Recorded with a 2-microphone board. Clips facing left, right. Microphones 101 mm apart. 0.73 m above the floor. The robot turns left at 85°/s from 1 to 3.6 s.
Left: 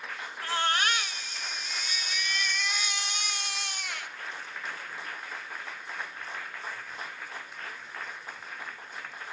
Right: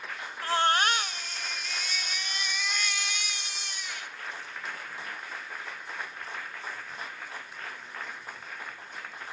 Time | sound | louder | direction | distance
0.4 | a baby crying | right 4 dB | 40° right | 0.8 m